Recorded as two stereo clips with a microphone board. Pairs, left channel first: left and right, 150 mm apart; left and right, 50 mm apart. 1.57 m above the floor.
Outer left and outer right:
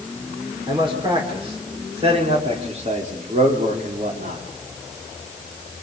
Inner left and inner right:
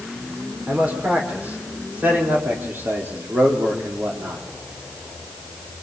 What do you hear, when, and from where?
0.7 s a man speaking: 30° right (ahead or behind), 5 m; by 4.5 s 65° right (ahead or behind), 3.5 m